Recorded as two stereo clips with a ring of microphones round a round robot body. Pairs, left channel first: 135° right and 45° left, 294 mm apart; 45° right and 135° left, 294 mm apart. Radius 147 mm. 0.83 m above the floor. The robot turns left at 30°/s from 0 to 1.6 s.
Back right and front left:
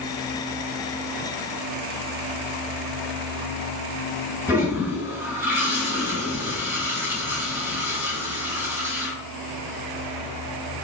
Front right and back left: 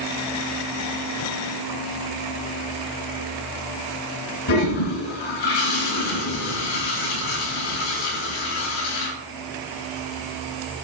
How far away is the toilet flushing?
About 4 m.